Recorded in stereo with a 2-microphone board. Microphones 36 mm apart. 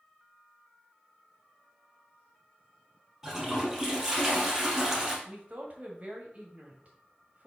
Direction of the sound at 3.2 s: 15° right (ahead or behind).